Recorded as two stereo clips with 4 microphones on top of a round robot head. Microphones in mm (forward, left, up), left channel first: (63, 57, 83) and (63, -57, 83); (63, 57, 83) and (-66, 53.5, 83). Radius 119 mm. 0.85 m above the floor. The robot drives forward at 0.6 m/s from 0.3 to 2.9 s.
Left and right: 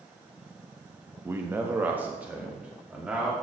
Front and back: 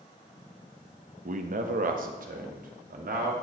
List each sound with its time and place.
1.2 s a man speaking: 160° right, 0.8 m; by 3.3 s 170° right, 1.7 m